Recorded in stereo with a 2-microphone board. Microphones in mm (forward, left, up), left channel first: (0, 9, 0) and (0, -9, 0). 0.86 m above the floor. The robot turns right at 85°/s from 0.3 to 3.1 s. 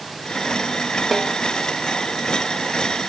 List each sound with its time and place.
1.1 s a snare drum: 5° right (ahead or behind), 0.6 m; by 1.4 s 10° left (ahead or behind), 0.6 m